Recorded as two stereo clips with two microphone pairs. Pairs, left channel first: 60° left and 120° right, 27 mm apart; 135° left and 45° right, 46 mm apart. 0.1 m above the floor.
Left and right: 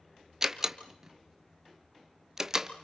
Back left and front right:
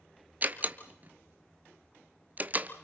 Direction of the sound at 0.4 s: 65° right.